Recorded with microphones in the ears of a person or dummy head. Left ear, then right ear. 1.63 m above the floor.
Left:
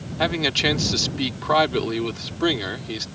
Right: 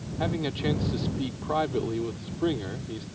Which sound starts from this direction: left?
A man speaking, at 0.2 s.